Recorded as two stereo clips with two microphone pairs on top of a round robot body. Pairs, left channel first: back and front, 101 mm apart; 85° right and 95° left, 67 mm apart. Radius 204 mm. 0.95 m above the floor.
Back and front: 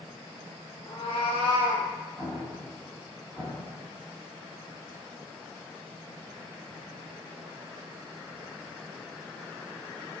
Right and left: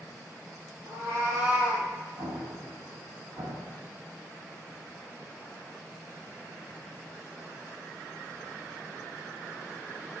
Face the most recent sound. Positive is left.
turn(degrees=75)